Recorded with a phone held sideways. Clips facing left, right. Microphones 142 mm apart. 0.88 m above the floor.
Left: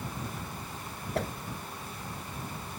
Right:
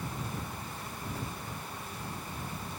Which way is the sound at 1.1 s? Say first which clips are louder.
Left 11 dB; 80° left.